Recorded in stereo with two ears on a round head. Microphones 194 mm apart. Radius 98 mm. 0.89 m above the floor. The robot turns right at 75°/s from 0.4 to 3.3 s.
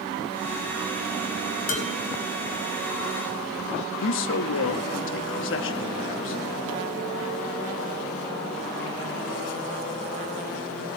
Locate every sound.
1.7 s dishes clattering: 40° left (ahead or behind), 3.5 m; by 1.9 s 30° left (ahead or behind), 3.5 m
4.0 s a man speaking: 65° left (ahead or behind), 1.0 m